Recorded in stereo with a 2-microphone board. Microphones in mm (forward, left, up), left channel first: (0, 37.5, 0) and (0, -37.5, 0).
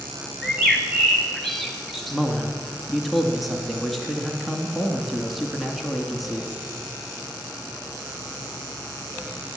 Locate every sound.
0.4 s a bird: centre (ahead or behind), 1.7 m
2.1 s a man speaking: centre (ahead or behind), 1.8 m